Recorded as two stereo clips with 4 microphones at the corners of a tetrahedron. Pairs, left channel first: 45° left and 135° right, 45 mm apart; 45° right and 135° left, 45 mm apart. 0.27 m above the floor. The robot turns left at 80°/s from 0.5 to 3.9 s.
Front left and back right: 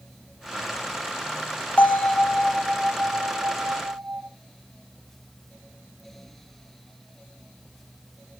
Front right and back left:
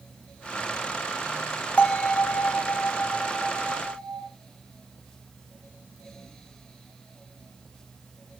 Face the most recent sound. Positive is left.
turn(degrees=-165)